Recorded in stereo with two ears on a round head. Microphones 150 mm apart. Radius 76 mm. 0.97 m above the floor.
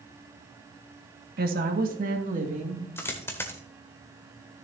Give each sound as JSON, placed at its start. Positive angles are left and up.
{"t": 1.4, "sound": "a woman speaking", "side_deg": -60, "distance_m": 1.6}
{"t": 3.0, "sound": "a dropped coin", "side_deg": 15, "distance_m": 1.3}